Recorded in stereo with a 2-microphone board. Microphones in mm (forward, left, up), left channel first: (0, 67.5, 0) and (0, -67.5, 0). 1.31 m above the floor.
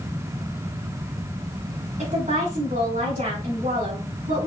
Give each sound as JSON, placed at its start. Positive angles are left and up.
{"t": 2.0, "sound": "a woman speaking", "side_deg": -85, "distance_m": 3.5}